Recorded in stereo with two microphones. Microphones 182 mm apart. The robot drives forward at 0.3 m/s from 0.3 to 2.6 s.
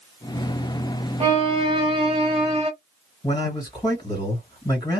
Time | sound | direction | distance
1.2 | a violin | 35° right (ahead or behind) | 1.0 m
3.2 | a man speaking | 25° left (ahead or behind) | 1.9 m